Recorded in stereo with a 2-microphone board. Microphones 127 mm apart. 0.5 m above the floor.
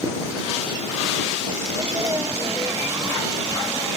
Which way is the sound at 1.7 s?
25° right (ahead or behind).